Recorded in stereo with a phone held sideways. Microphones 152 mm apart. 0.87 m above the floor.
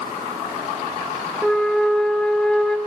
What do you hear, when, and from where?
1.4 s a flute: 5° left (ahead or behind), 1.7 m